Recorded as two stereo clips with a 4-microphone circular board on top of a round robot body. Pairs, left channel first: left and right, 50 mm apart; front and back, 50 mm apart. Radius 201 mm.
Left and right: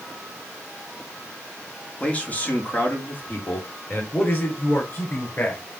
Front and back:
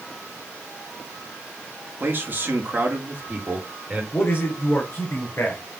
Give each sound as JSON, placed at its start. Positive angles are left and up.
{"t": 2.0, "sound": "a man speaking", "azimuth_deg": 150, "distance_m": 1.9}
{"t": 4.1, "sound": "a man speaking", "azimuth_deg": 45, "distance_m": 4.0}